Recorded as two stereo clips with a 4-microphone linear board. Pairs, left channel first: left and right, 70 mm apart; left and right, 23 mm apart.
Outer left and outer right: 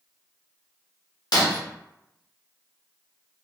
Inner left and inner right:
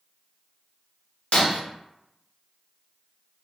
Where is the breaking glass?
70° left (ahead or behind), 0.8 m.